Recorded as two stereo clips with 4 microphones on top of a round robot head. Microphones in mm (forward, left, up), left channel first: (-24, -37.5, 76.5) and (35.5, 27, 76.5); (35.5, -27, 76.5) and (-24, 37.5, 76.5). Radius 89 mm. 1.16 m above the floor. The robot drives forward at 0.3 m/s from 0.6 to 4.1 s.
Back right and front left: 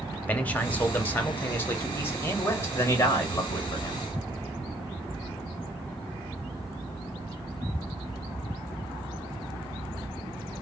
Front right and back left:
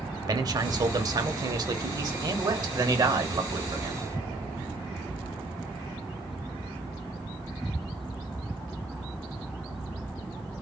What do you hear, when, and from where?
0.3 s a man speaking: 160° left, 0.9 m; by 4.0 s 170° left, 1.9 m